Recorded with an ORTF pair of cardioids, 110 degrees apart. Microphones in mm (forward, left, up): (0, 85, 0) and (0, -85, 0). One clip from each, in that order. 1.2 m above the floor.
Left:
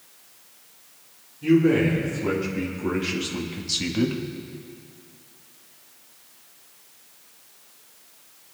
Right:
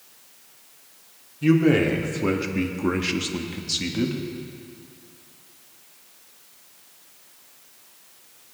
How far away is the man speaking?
About 3 m.